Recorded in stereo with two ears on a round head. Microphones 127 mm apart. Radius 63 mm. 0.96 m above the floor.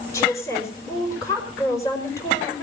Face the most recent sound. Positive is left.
turn(degrees=20)  # may be behind; listen again after turning